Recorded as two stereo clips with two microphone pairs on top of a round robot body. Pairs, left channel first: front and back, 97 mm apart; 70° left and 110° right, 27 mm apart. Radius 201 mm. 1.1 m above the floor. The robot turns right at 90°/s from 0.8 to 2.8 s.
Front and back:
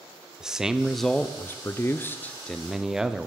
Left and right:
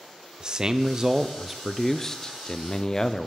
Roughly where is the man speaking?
Right.